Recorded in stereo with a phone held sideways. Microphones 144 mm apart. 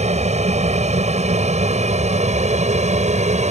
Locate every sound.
0.0 s an aircraft: 50° right (ahead or behind)